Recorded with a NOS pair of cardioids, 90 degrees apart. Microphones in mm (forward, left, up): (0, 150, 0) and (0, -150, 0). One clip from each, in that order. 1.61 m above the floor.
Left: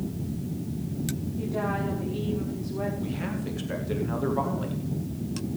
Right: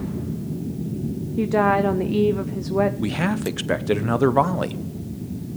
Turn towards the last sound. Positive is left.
turn(degrees=-60)